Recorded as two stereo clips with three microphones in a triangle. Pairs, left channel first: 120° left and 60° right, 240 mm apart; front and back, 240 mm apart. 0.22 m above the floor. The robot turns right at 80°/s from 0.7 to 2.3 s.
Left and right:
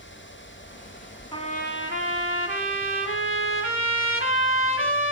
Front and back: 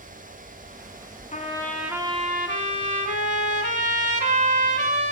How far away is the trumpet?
About 0.7 m.